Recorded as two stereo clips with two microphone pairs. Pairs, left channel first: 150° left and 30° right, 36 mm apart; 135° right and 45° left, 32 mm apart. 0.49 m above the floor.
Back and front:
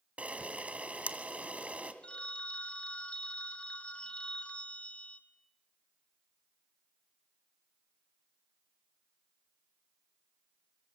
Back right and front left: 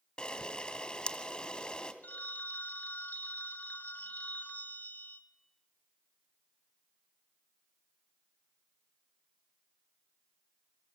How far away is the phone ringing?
About 1.9 m.